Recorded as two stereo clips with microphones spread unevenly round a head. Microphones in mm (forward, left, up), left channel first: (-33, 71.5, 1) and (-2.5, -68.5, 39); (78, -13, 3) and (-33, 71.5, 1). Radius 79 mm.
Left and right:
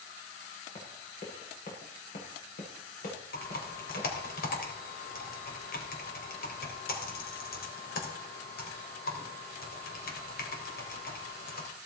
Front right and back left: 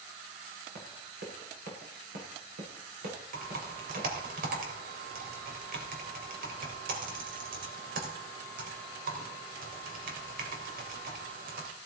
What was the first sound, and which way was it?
Running footsteps, 145° left.